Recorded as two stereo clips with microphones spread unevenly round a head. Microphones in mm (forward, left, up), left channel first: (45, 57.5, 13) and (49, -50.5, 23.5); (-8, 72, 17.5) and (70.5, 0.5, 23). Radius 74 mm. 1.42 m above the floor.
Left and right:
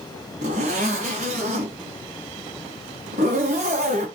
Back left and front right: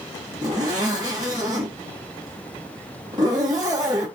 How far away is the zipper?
About 2.5 m.